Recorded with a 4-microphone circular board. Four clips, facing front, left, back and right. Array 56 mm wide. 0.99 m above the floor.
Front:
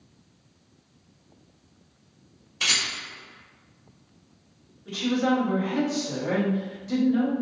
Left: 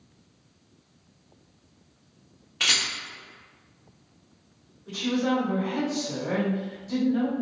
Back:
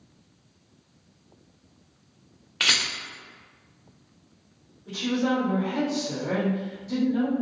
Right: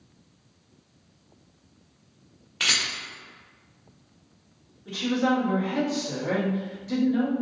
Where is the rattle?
175° right, 1.0 m.